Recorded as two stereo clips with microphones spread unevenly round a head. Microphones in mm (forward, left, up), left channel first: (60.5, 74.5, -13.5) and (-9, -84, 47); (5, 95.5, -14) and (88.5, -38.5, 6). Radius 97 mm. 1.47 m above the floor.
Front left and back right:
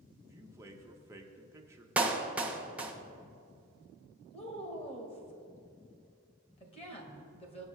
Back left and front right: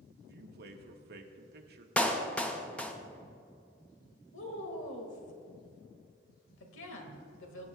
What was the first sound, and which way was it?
A man speaking, 45° right.